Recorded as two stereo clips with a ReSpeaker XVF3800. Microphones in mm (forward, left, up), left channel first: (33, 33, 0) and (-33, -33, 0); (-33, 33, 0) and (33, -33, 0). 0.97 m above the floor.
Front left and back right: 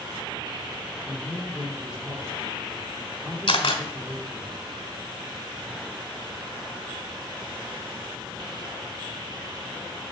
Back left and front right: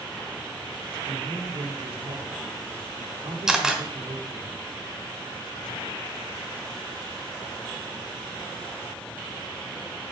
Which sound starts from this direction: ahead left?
A camera shutter, at 3.5 s.